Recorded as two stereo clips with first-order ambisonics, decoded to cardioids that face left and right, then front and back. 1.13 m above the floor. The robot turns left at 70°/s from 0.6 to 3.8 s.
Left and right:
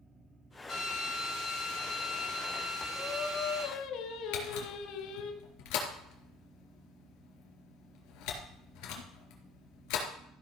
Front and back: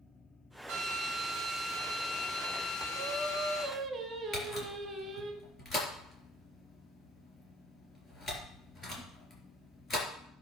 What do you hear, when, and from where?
0.7 s a drill: 165° left, 4.5 m; by 3.6 s 45° right, 4.5 m
3.0 s singing: 170° left, 1.9 m; by 5.3 s 110° left, 1.9 m
4.3 s a camera shutter: 70° left, 3.5 m